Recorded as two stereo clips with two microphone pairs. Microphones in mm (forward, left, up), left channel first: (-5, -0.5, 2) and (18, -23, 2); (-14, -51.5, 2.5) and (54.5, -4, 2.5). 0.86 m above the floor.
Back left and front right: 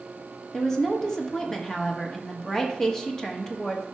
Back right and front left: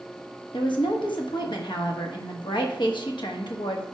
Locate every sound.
0.5 s a woman speaking: 150° right, 1.1 m